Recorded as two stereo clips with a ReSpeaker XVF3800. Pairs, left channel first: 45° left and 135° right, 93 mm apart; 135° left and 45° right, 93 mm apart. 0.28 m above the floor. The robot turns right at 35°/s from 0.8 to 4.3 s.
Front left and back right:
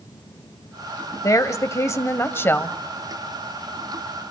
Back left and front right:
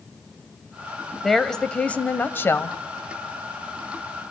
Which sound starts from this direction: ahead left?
A woman speaking, at 1.2 s.